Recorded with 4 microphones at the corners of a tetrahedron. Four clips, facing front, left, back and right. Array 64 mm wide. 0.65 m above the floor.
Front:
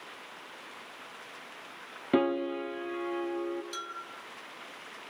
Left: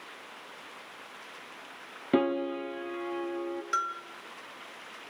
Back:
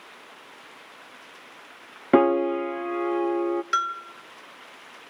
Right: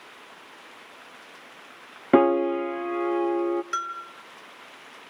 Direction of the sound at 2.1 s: 135° right.